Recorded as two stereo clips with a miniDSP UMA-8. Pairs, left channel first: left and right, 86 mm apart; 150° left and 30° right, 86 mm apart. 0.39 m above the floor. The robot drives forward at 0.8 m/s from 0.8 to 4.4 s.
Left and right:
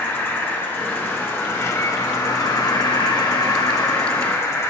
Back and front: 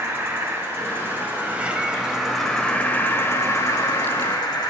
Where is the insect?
25° left, 2 m; by 4.7 s 140° left, 1.6 m.